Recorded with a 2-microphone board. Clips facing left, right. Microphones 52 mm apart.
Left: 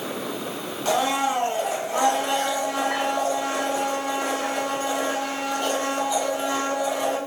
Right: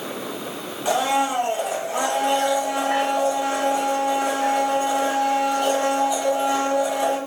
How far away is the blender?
About 1.1 m.